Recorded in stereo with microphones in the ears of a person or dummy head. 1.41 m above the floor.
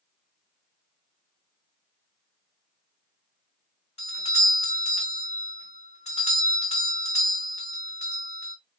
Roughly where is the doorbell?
Left.